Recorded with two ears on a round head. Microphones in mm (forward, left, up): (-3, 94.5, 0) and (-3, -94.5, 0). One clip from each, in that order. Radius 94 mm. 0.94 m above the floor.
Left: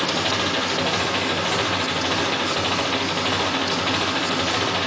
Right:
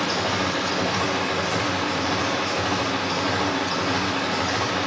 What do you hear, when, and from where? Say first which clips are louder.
0.0 s an engine running: left 2 dB; 80° left, 6 m